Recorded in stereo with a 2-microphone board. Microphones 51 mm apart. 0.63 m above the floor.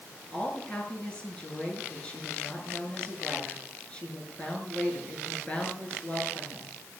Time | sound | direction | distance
0.3 | a woman speaking | 20° left (ahead or behind) | 8 m